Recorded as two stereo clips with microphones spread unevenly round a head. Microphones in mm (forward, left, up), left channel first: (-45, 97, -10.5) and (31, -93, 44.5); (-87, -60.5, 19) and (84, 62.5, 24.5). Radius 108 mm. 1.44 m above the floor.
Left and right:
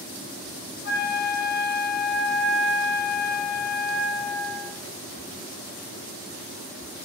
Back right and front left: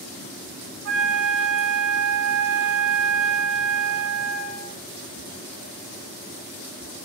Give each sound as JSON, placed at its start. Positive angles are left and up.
{"t": 0.8, "sound": "a flute", "azimuth_deg": 70, "distance_m": 0.5}